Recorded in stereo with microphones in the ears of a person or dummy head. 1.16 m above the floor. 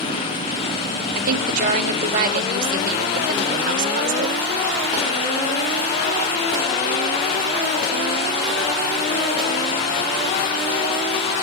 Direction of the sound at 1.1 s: 50° right (ahead or behind).